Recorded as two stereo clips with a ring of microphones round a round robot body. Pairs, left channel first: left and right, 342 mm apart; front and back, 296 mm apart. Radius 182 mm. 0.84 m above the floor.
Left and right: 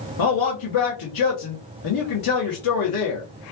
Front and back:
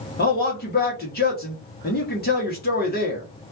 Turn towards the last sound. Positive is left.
turn(degrees=60)